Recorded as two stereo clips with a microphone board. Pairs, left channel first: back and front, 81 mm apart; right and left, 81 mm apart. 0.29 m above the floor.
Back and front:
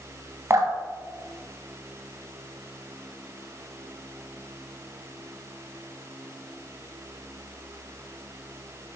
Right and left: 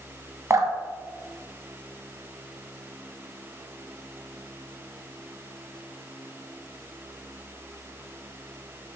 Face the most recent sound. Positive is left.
turn(degrees=45)